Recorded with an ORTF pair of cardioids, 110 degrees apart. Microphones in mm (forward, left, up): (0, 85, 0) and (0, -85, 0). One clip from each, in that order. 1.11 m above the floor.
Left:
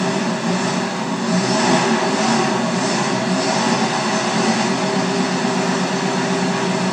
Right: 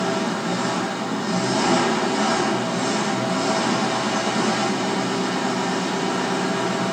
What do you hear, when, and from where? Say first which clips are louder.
0.0 s an engine running: left 3 dB; 60° left, 1.3 m